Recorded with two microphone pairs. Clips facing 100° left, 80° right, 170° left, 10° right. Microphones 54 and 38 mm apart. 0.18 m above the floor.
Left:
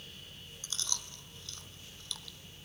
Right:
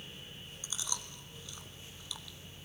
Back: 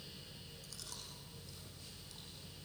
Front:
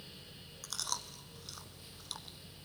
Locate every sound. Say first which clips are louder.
0.6 s chewing: even, front 14 dB; 5° right, 1.1 m